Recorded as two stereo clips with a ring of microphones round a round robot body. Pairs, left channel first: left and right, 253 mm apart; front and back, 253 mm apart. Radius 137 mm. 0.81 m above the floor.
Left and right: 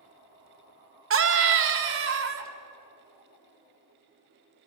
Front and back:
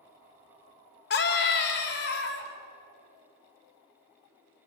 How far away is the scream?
About 3.5 m.